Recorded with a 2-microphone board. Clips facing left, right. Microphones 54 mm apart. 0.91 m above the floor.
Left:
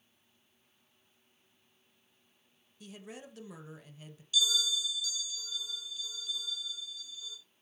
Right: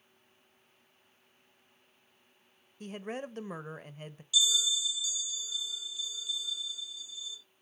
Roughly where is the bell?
Left.